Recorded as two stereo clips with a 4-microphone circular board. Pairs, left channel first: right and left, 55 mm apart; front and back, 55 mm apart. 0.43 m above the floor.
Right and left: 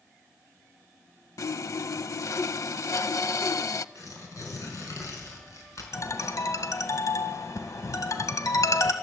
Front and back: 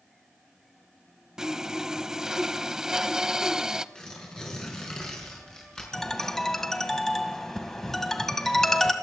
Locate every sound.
1.4 s sawing: 100° right, 0.5 m
4.0 s tearing paper: 75° right, 5 m
5.9 s a ringtone: 80° right, 1.6 m